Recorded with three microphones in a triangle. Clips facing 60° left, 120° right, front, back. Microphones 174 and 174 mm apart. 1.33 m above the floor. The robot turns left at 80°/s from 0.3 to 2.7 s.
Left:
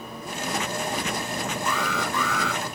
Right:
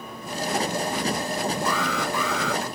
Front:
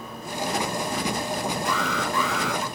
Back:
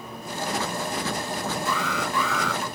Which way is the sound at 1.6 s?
Straight ahead.